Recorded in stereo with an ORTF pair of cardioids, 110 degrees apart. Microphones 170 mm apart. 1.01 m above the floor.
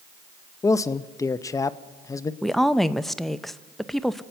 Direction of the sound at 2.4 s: Straight ahead.